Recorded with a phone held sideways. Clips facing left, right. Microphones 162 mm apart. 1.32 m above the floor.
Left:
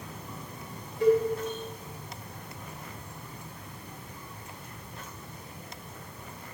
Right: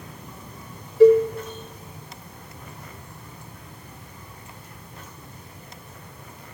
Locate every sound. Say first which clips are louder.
1.0 s a cowbell: right 10 dB; 85° right, 1.2 m